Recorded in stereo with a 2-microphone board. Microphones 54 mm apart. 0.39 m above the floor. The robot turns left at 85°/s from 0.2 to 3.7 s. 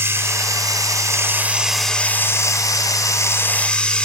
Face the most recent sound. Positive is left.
turn(degrees=20)